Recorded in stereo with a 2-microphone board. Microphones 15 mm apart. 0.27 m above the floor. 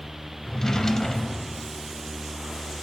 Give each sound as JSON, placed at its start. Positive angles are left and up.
{"t": 0.4, "sound": "a drawer", "side_deg": 35, "distance_m": 0.7}